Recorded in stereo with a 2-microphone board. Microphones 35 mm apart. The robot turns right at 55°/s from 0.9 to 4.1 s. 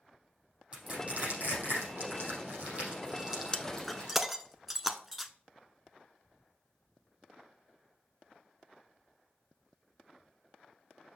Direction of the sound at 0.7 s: 35° right (ahead or behind).